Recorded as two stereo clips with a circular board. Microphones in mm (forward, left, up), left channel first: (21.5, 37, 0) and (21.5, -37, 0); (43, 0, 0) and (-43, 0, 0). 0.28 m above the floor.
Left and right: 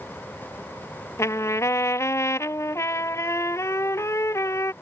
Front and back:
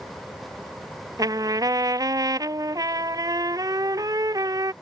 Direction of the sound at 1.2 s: 135° left.